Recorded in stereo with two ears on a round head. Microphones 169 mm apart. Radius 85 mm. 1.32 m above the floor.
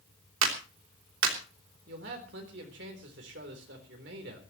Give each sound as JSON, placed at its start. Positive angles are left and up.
{"t": 0.4, "sound": "a clap", "side_deg": -80, "distance_m": 3.5}
{"t": 1.9, "sound": "a man speaking", "side_deg": -70, "distance_m": 4.0}